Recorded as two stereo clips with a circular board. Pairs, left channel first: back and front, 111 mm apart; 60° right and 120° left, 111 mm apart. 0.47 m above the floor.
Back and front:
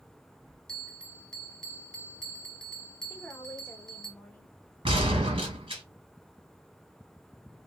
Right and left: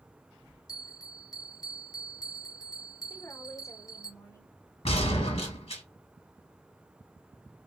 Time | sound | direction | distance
0.7 | a bell | 95° right | 0.7 m
3.1 | a woman speaking | 110° right | 1.0 m
4.8 | a gunshot | 35° right | 1.6 m